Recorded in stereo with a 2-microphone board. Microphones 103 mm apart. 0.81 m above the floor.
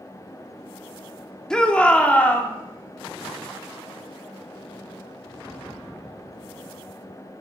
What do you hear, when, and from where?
1.5 s a shout: 5° left (ahead or behind), 2 m; by 2.5 s 15° left (ahead or behind), 2.5 m